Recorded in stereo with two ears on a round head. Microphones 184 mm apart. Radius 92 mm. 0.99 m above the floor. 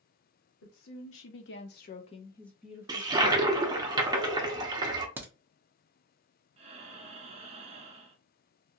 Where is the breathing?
30° right (ahead or behind), 0.5 m.